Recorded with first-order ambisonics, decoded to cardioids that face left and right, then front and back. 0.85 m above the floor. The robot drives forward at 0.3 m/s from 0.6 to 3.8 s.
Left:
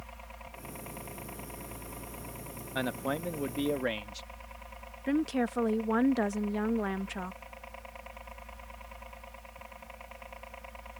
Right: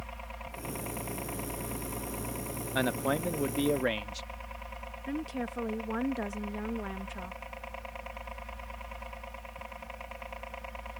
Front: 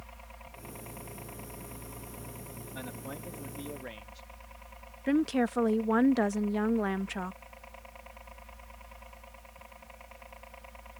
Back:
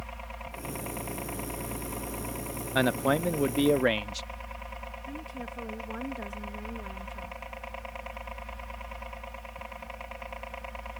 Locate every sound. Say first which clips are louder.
0.0 s a helicopter: right 4 dB, back 9 dB; 145° right; by 11.0 s 150° right
2.8 s a man speaking: right 3 dB, back 18 dB; 165° right; by 4.3 s 170° right
5.1 s a woman speaking: left 7 dB, front 17 dB; 25° left